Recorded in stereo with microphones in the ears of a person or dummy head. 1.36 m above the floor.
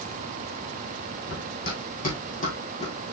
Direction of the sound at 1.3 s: 55° left (ahead or behind).